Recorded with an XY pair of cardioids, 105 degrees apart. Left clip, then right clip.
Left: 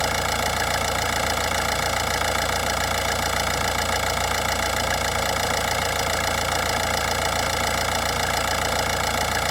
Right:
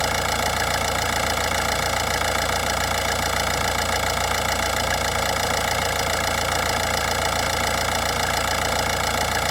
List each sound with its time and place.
0.0 s an engine running: 5° right